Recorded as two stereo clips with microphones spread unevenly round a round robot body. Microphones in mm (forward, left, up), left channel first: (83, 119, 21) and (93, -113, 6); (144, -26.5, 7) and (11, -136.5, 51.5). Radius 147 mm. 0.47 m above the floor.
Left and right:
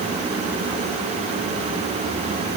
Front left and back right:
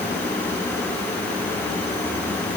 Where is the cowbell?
I don't hear a cowbell.